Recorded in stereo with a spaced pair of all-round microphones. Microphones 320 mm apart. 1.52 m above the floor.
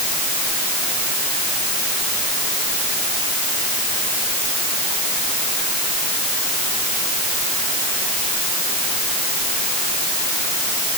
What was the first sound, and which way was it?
Only background noise.